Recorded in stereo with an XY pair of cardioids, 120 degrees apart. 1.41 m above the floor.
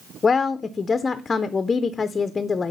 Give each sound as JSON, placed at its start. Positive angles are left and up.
{"t": 0.2, "sound": "a woman speaking", "azimuth_deg": 30, "distance_m": 0.5}